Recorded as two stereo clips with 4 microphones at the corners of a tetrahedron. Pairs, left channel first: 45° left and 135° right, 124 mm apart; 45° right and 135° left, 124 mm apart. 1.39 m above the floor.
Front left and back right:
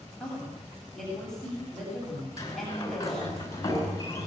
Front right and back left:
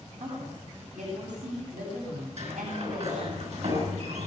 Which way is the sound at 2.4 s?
105° left.